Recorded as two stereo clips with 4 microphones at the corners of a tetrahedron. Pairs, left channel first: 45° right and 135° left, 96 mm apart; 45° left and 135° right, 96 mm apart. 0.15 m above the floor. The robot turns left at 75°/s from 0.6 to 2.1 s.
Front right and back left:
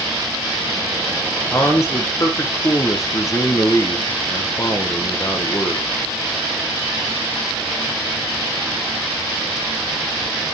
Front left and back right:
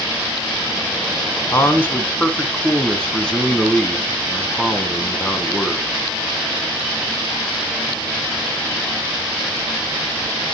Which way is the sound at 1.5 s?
15° left.